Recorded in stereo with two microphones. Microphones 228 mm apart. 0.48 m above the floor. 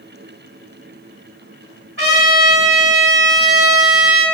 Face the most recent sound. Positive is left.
turn(degrees=-65)  # may be behind; listen again after turning